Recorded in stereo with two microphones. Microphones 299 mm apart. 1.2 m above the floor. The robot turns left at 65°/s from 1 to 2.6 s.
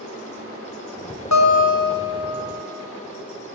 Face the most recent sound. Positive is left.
turn(degrees=-15)